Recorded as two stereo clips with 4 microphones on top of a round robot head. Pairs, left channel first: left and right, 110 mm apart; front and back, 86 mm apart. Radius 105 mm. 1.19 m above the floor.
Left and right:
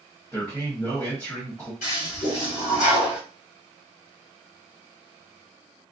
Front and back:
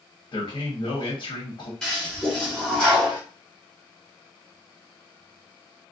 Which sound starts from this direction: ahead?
A man speaking, at 0.3 s.